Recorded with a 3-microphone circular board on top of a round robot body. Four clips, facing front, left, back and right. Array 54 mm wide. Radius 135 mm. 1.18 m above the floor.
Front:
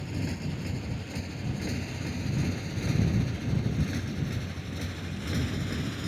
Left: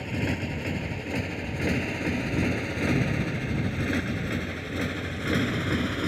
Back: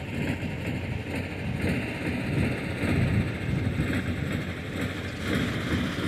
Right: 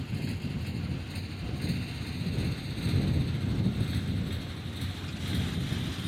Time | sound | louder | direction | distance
0.0 | a motorcycle | left 7 dB, back 3 dB | 115° left | ?